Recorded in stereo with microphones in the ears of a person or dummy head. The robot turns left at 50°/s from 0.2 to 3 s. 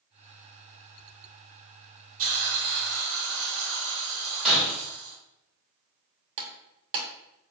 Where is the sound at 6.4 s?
45° right (ahead or behind), 0.7 m.